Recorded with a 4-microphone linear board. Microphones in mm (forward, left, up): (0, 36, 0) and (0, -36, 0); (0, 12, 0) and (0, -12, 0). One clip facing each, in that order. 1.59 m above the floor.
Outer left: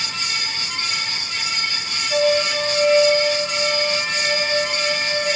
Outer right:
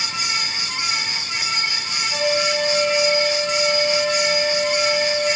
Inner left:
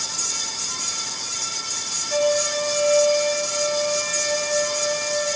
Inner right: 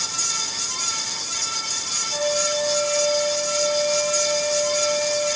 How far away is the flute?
About 6 m.